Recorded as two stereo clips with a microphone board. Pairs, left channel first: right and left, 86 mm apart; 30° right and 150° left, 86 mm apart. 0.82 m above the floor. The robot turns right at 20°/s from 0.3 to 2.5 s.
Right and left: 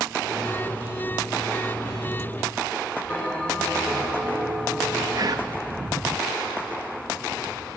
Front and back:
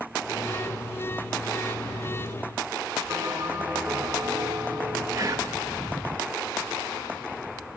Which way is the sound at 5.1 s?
115° left.